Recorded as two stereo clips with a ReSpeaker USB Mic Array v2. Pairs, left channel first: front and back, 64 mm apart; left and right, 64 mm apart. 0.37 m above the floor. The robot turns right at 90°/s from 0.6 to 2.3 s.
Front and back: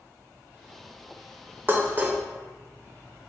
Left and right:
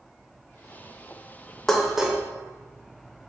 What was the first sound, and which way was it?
Dishes clattering, 170° left.